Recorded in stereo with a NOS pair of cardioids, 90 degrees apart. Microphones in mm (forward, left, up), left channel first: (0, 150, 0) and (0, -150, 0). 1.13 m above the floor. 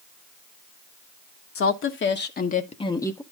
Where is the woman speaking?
50° left, 1.4 m; by 3.2 s 5° left, 1.0 m.